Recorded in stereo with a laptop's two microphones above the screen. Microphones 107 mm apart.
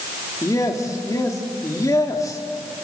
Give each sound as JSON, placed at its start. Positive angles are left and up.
{"t": 0.4, "sound": "a man speaking", "side_deg": 35, "distance_m": 2.0}